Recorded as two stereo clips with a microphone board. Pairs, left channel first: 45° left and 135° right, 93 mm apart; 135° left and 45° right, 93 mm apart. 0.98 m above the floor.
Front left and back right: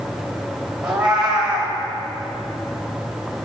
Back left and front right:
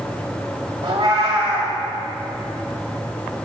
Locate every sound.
0.8 s a cat meowing: 55° right, 2.5 m